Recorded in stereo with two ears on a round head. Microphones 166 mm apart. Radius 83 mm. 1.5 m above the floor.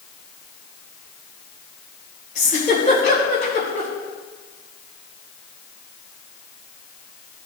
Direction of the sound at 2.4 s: 40° left (ahead or behind).